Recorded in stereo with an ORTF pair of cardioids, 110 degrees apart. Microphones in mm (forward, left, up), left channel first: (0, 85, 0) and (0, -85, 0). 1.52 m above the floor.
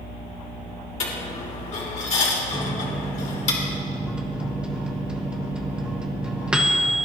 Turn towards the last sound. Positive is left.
turn(degrees=-5)